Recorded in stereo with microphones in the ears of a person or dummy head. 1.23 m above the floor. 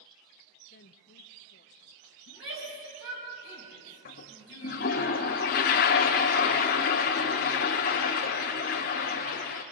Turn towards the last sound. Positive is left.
turn(degrees=40)  # may be behind; listen again after turning